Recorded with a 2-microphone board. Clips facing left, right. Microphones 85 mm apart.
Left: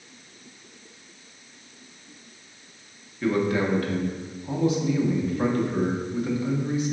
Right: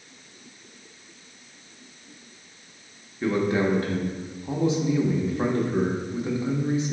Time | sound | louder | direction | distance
3.2 | a man speaking | even | 25° right (ahead or behind) | 0.8 m